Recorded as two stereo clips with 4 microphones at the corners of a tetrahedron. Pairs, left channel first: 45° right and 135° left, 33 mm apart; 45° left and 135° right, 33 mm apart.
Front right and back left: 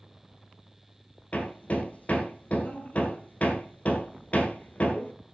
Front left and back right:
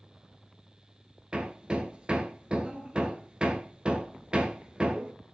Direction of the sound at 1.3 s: 80° right.